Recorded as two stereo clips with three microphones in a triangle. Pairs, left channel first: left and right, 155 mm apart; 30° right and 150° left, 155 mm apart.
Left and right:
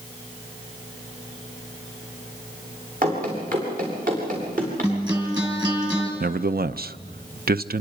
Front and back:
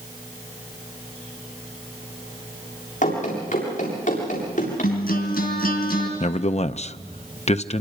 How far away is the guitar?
About 3.5 m.